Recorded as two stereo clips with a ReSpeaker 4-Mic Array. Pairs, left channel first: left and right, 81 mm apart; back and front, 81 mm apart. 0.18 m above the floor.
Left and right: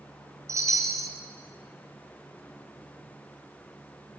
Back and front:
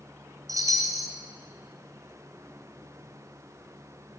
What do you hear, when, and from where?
0.5 s a chime: 40° right, 1.7 m